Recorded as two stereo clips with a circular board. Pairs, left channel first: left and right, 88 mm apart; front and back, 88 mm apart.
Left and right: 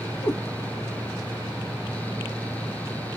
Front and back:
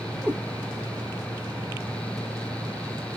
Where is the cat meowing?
110° left, 0.8 m.